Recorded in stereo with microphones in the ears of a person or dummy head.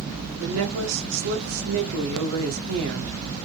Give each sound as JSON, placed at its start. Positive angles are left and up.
{"t": 0.4, "sound": "a woman speaking", "side_deg": -85, "distance_m": 1.6}